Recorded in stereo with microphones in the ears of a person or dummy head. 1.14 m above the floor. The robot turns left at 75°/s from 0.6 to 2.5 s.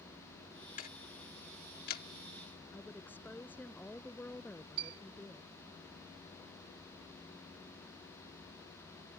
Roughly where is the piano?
Right.